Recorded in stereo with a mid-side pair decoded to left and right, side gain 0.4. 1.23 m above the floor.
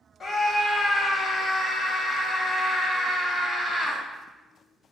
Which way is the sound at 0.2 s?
50° left.